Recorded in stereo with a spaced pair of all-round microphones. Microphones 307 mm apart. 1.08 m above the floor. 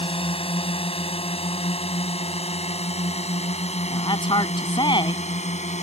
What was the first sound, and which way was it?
A drone, 15° left (ahead or behind).